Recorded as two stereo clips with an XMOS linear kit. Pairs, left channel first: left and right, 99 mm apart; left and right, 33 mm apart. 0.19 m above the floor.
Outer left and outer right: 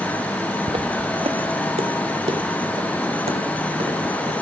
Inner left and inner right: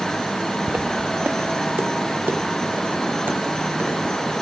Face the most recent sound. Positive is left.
turn(degrees=-85)